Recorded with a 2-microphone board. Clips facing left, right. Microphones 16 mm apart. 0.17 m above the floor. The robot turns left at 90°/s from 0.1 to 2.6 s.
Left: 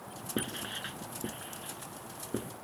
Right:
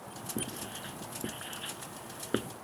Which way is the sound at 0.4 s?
55° left (ahead or behind).